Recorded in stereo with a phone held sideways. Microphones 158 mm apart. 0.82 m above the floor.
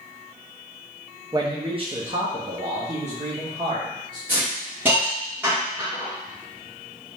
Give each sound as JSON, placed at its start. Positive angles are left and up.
{"t": 1.3, "sound": "a man speaking", "side_deg": -25, "distance_m": 0.6}
{"t": 4.3, "sound": "a hiss", "side_deg": -10, "distance_m": 2.0}